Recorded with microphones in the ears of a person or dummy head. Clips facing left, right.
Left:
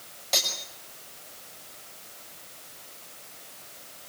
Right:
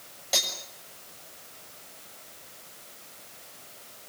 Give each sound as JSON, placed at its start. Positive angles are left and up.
{"t": 0.3, "sound": "cutlery clinking", "side_deg": -5, "distance_m": 6.0}